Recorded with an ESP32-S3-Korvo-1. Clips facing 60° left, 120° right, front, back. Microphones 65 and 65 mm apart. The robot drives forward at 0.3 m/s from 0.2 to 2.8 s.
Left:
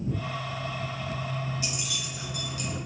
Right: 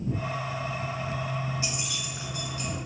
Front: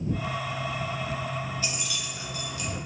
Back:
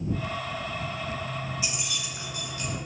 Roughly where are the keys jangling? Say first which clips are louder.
Right 1 dB, even; behind right.